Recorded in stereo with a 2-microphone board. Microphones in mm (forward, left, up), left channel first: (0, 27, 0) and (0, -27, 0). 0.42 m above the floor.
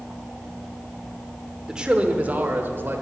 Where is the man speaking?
15° right (ahead or behind), 0.9 m; by 3.0 s 45° right (ahead or behind), 1.2 m.